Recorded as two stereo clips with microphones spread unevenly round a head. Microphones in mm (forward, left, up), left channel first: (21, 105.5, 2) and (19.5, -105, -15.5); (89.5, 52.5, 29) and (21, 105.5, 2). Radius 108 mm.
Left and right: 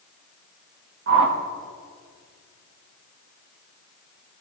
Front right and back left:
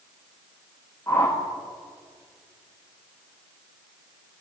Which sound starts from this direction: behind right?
A whoosh, at 1.1 s.